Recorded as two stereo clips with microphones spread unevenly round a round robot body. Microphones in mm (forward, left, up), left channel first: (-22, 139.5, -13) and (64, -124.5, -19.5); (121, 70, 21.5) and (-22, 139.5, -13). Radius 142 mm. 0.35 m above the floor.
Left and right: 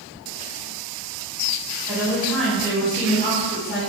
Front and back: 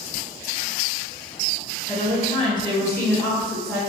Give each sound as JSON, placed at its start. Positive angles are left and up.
{"t": 1.9, "sound": "a woman speaking", "azimuth_deg": -10, "distance_m": 1.3}